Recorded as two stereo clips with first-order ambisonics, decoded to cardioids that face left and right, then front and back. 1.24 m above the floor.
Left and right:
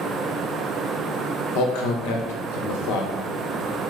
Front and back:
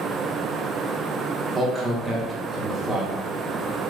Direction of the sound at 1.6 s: 90° left.